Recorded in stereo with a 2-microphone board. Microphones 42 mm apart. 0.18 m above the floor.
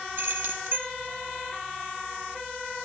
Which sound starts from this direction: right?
Keys jangling, at 0.2 s.